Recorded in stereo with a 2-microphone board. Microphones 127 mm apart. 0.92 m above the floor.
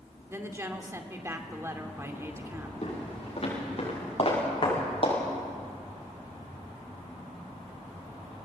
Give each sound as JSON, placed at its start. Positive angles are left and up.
{"t": 0.3, "sound": "a woman speaking", "side_deg": -20, "distance_m": 2.0}
{"t": 2.8, "sound": "footsteps", "side_deg": 50, "distance_m": 8.0}